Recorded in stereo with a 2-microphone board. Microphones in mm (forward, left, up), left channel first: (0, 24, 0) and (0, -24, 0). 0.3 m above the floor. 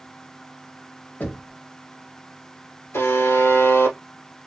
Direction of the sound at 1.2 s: 40° left (ahead or behind).